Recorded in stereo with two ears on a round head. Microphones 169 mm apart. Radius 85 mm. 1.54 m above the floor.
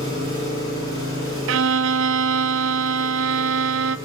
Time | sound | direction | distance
0.0 | an engine running | 25° right (ahead or behind) | 7 m
1.5 | a violin | 75° right (ahead or behind) | 0.5 m